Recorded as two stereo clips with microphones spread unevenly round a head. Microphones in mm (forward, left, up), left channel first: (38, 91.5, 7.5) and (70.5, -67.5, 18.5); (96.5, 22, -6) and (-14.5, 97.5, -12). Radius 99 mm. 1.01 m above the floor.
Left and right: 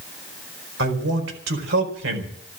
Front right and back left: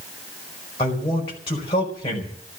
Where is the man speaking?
100° right, 4.5 m.